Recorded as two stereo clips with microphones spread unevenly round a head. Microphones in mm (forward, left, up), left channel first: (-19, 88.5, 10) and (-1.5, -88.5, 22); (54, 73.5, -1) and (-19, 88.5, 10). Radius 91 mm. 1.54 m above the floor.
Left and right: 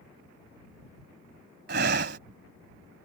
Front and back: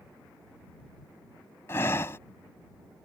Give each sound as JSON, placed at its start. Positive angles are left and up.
{"t": 1.7, "sound": "breathing", "azimuth_deg": -80}